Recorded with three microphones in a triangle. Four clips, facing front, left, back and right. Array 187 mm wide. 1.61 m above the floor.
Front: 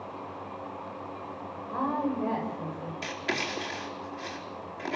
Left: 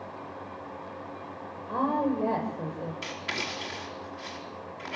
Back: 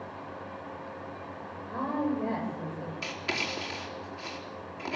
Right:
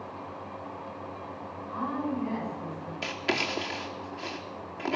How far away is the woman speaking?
About 8 m.